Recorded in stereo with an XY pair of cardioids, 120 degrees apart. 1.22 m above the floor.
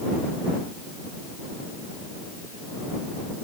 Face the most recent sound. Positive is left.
No sound to turn to.